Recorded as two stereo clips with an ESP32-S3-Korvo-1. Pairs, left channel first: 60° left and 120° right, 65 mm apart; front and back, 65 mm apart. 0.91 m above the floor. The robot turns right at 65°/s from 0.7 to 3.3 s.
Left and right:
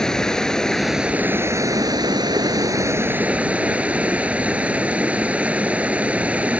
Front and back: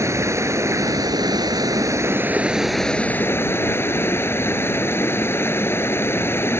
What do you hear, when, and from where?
0.0 s running water: 140° left; by 6.6 s 50° right